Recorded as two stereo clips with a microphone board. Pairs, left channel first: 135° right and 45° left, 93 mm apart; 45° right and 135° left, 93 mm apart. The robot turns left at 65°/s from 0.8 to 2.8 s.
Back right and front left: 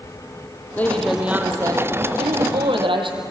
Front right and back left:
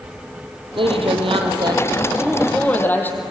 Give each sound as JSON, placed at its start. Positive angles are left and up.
{"t": 0.8, "sound": "a woman speaking", "azimuth_deg": 155, "distance_m": 3.5}